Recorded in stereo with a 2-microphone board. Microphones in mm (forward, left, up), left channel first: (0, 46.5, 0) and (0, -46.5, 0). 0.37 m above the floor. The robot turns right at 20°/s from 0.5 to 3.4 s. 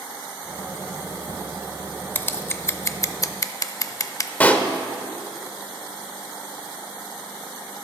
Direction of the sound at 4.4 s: 15° left (ahead or behind).